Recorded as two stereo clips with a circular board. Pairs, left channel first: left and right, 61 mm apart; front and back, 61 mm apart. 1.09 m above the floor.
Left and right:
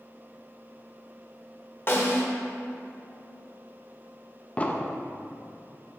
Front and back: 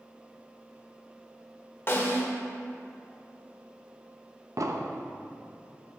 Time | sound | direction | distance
1.9 | a snare drum | 45° left | 1.3 m
4.6 | an explosion | 155° left | 0.6 m